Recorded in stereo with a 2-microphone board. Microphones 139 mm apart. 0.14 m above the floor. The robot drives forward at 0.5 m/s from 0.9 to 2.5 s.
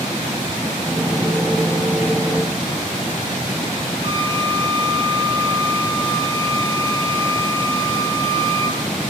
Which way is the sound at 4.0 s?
35° right (ahead or behind).